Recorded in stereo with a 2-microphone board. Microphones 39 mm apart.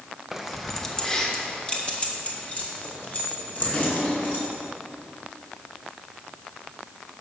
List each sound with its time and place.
0.3 s keys jangling: 10° right (ahead or behind), 0.8 m; by 4.4 s 45° left (ahead or behind), 3 m